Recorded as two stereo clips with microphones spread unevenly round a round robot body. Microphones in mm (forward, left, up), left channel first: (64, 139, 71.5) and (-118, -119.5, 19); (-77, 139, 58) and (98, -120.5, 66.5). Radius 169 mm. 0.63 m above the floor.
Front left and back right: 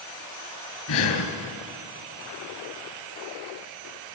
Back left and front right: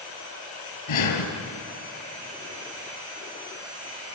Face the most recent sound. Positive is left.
turn(degrees=90)